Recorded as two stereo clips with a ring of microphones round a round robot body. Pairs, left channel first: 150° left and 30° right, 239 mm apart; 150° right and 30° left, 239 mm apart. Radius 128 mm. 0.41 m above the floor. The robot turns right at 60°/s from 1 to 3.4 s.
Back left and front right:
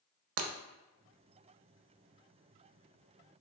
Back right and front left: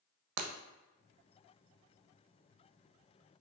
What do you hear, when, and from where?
0.4 s breaking glass: 5° left, 0.5 m